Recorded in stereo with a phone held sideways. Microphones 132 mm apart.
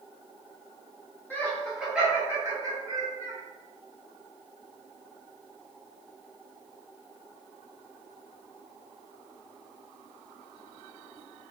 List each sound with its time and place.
1.3 s laughter: 15° left (ahead or behind), 1.0 m; by 3.4 s 45° right (ahead or behind), 1.2 m